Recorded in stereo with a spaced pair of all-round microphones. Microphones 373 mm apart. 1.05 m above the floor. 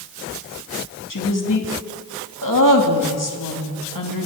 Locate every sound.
1.1 s a woman speaking: 60° left (ahead or behind), 2 m